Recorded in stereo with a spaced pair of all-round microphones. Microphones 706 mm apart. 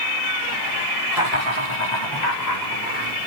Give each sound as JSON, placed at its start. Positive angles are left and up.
{"t": 1.1, "sound": "laughter", "side_deg": 60, "distance_m": 3.0}